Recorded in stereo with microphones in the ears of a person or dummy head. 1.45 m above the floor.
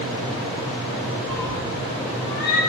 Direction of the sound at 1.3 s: 5° right (ahead or behind).